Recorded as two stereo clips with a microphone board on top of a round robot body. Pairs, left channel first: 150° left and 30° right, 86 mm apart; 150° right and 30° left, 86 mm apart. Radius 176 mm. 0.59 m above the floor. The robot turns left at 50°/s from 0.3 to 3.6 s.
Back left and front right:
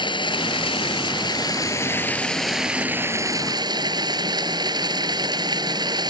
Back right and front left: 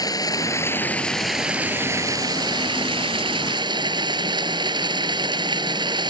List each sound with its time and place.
0.0 s running water: 170° left; by 6.1 s 5° left